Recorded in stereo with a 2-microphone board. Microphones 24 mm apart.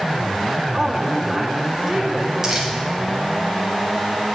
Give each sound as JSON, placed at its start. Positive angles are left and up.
{"t": 0.7, "sound": "a woman speaking", "side_deg": -20, "distance_m": 1.4}
{"t": 2.4, "sound": "crumpling", "side_deg": -15, "distance_m": 2.0}